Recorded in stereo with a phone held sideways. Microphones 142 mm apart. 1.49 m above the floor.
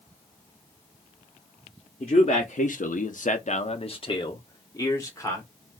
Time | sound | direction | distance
2.0 | a man speaking | 45° left (ahead or behind) | 0.8 m